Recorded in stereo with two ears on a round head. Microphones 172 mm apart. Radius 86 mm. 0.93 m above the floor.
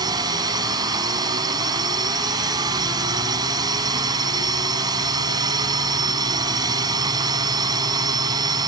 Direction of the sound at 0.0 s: 20° right (ahead or behind).